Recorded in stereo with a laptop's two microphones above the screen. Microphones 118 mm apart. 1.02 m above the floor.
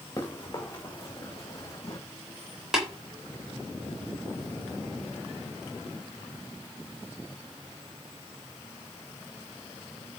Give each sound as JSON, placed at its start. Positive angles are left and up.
{"t": 0.2, "sound": "running footsteps", "side_deg": 30, "distance_m": 4.0}
{"t": 2.7, "sound": "tapping", "side_deg": -5, "distance_m": 3.5}